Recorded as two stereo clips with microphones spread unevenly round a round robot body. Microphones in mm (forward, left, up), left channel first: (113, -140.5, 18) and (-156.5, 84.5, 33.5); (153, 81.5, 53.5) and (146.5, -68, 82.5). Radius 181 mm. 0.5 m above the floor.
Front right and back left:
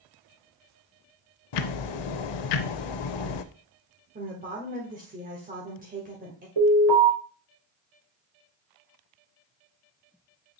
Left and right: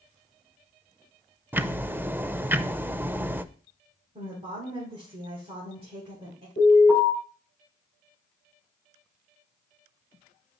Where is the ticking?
15° right, 0.6 m.